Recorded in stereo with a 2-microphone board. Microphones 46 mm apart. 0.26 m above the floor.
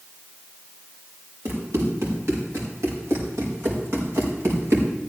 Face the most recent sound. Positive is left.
turn(degrees=-70)  # may be behind; listen again after turning